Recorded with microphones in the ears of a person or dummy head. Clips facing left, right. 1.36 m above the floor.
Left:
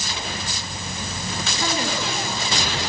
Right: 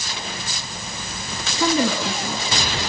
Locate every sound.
1.6 s a woman speaking: 70° right (ahead or behind), 1.8 m